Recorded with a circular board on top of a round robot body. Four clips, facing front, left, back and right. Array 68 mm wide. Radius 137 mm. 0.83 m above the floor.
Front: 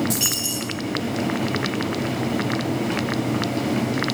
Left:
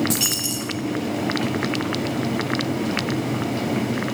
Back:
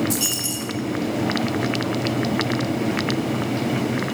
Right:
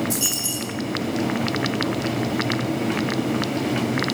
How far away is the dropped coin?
About 1.1 m.